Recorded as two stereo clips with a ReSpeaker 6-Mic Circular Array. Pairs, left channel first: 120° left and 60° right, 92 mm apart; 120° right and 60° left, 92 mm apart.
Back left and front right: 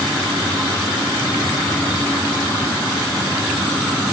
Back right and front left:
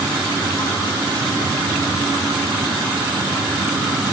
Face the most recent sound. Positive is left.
No sound to turn to.